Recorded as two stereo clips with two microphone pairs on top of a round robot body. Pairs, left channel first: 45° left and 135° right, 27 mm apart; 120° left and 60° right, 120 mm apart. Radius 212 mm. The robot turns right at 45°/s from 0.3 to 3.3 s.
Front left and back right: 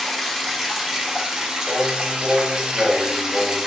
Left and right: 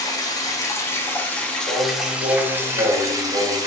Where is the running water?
140° left, 0.9 m; by 3.7 s 85° right, 0.9 m.